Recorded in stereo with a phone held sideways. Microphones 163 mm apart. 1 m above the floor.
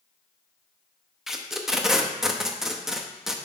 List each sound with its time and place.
1.3 s tape being pulled: centre (ahead or behind), 0.6 m